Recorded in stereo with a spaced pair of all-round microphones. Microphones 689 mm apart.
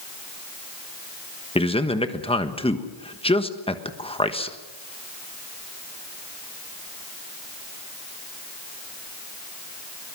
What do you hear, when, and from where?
1.6 s a man speaking: 10° left (ahead or behind), 1.3 m